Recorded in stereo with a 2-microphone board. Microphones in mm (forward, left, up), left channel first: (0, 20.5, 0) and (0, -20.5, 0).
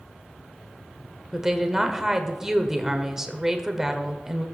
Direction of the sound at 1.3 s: 15° right (ahead or behind).